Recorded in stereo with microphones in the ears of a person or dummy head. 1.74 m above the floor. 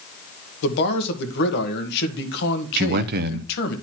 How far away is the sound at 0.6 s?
About 1.5 m.